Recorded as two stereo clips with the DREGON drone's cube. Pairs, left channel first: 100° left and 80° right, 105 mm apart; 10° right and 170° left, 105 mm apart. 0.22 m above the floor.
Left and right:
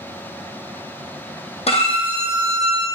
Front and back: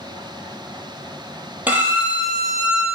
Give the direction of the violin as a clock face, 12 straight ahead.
9 o'clock.